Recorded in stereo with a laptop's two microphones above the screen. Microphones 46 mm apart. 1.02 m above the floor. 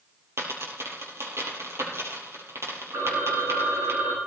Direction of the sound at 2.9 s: 75° right (ahead or behind).